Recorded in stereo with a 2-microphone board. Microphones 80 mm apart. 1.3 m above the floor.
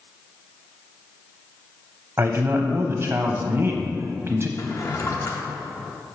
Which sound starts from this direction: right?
A man speaking, at 2.2 s.